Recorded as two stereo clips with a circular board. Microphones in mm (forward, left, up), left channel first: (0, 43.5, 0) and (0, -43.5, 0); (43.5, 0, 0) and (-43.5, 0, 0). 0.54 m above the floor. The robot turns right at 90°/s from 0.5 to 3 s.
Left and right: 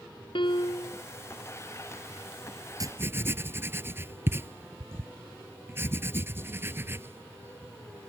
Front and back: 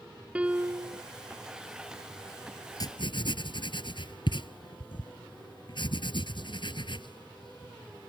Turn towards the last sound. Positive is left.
turn(degrees=-25)